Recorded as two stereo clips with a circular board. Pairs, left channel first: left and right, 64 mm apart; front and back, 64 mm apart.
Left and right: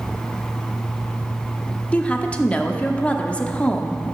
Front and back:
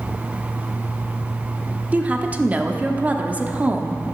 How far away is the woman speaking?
About 0.8 m.